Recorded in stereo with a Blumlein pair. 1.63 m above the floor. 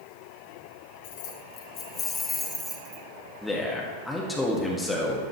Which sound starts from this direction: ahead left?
Keys jangling, at 1.0 s.